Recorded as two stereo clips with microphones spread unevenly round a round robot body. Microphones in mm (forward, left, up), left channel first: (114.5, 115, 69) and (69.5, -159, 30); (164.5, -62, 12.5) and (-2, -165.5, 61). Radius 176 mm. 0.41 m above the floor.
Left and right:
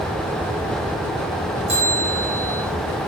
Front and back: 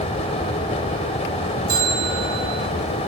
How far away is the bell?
About 8 m.